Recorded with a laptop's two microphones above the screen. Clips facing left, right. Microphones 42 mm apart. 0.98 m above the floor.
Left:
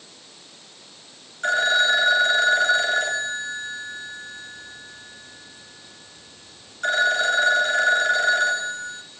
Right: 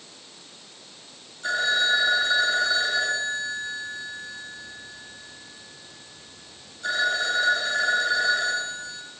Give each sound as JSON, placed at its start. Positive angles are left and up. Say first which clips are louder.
{"t": 1.4, "sound": "a phone ringing", "louder": "left 4 dB", "side_deg": 55, "distance_m": 4.0}